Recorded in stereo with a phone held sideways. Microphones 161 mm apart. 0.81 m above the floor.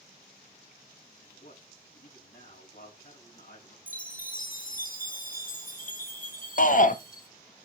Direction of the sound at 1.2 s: 70° left (ahead or behind).